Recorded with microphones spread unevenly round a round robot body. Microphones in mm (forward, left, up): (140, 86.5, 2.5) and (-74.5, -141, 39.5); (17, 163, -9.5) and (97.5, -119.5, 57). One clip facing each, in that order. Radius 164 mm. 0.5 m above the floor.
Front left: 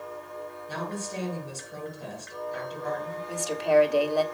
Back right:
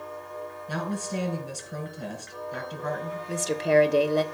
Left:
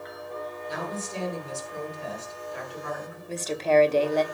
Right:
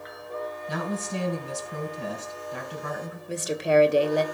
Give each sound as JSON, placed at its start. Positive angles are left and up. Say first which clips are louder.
{"t": 0.7, "sound": "a woman speaking", "louder": "back right 4 dB, right 4 dB", "azimuth_deg": -105, "distance_m": 4.0}
{"t": 3.3, "sound": "a woman speaking", "louder": "back right 1 dB, even", "azimuth_deg": -165, "distance_m": 1.0}